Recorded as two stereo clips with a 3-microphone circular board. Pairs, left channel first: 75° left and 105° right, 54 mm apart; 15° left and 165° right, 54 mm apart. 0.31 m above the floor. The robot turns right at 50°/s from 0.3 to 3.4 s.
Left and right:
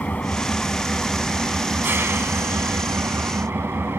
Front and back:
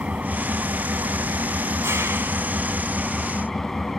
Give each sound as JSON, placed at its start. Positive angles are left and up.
{"t": 0.0, "sound": "an engine running", "azimuth_deg": 135, "distance_m": 1.1}